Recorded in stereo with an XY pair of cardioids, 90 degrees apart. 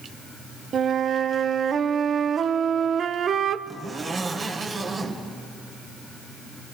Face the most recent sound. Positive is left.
turn(degrees=-45)